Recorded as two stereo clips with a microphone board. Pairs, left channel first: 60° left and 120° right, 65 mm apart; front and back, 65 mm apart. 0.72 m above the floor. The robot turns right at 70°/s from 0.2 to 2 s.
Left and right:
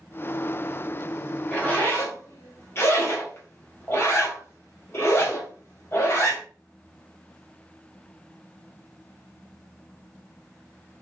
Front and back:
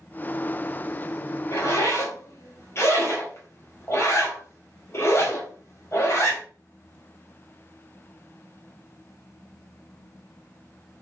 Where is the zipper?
5° right, 1.4 m; by 6.4 s 30° left, 1.4 m.